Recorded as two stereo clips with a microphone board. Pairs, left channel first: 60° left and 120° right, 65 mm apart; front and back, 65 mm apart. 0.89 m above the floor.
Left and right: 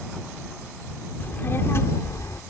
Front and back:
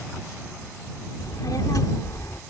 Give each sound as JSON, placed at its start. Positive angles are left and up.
{"t": 1.2, "sound": "a child speaking", "azimuth_deg": 5}